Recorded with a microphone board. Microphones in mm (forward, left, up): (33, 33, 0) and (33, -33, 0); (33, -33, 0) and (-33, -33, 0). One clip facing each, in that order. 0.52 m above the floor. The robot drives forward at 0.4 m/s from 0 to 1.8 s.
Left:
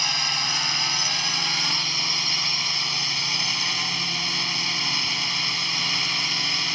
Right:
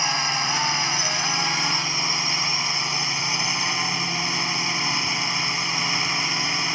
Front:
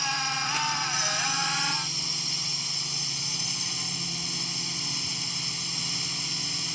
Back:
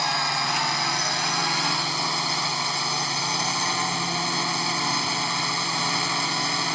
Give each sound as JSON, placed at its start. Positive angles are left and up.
{"t": 0.0, "sound": "a drone", "azimuth_deg": -155}